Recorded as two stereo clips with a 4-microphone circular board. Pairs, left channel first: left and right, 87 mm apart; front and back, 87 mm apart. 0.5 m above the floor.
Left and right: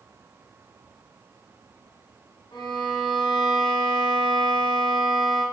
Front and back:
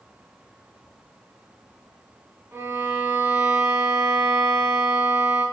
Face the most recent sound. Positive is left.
turn(degrees=120)